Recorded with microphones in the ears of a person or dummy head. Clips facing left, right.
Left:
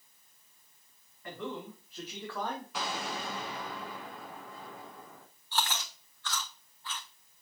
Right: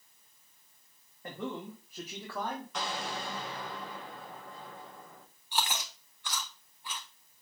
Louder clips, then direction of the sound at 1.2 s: Right 1 dB; 30° right (ahead or behind).